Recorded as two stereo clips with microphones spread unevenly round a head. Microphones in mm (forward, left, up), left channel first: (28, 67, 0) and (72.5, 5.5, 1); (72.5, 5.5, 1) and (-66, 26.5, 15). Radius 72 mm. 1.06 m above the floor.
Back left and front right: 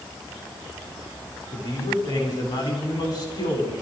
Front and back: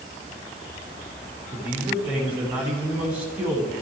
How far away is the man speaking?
About 8 m.